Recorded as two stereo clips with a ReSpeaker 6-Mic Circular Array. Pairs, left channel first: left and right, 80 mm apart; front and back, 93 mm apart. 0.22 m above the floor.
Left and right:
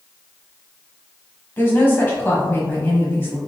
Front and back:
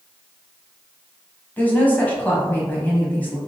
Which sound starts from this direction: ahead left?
A woman speaking, at 1.6 s.